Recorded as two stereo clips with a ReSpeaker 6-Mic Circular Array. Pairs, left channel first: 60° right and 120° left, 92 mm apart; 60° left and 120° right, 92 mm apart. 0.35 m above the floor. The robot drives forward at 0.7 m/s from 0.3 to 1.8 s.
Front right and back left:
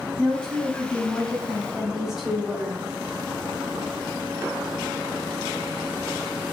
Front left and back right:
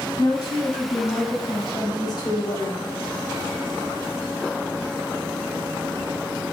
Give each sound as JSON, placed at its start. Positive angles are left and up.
{"t": 0.2, "sound": "a woman speaking", "azimuth_deg": 20, "distance_m": 2.0}